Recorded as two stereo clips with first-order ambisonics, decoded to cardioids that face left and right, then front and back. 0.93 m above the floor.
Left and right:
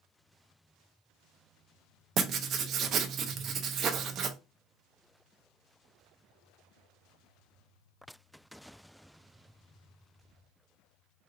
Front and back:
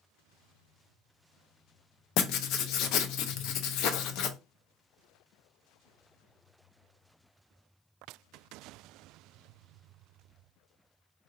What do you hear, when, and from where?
2.2 s writing: 35° right, 0.5 m